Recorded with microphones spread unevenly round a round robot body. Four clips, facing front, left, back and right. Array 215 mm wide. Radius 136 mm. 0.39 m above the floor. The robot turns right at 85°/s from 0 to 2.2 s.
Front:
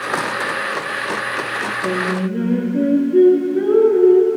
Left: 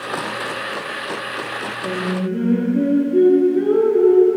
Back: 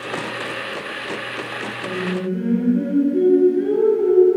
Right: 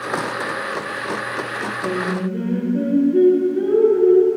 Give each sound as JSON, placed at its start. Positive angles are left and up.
{"t": 1.8, "sound": "singing", "azimuth_deg": -15, "distance_m": 4.5}